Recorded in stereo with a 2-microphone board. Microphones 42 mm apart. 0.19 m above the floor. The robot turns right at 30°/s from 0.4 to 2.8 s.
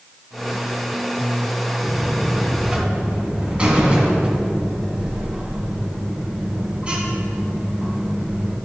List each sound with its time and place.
1.8 s a buzzer: 5° right (ahead or behind), 1.8 m; by 8.6 s 25° right (ahead or behind), 1.8 m